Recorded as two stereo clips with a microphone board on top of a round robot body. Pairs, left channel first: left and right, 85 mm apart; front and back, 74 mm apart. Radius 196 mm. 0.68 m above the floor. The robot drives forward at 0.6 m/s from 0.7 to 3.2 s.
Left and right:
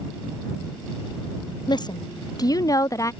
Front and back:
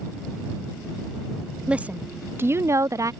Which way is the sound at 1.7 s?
105° left.